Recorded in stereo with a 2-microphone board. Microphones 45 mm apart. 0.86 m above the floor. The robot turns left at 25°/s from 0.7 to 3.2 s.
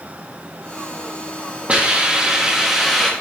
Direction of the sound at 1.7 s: 145° right.